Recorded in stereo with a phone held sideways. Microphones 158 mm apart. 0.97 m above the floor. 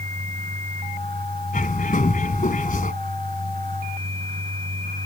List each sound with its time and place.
0.0 s a fan: 70° right (ahead or behind)
1.5 s a bird: 60° left (ahead or behind)